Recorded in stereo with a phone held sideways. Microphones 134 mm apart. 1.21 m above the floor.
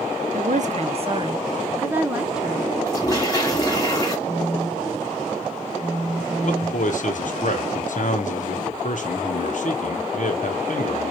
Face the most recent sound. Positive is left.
turn(degrees=60)  # may be behind; listen again after turning